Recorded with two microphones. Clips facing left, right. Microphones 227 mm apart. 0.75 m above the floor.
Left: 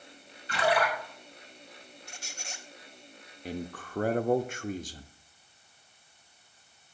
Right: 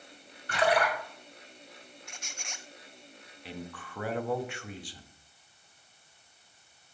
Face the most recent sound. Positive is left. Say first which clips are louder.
# left 5 dB
turn(degrees=45)  # may be behind; listen again after turning